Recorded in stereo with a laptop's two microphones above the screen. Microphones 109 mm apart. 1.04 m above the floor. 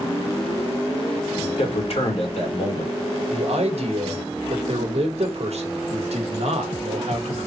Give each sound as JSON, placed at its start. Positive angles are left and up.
{"t": 1.6, "sound": "a man speaking", "side_deg": 65, "distance_m": 1.6}
{"t": 3.3, "sound": "a man speaking", "side_deg": -70, "distance_m": 1.0}